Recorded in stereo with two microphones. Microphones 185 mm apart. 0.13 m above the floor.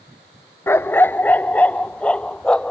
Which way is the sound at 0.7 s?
15° left (ahead or behind).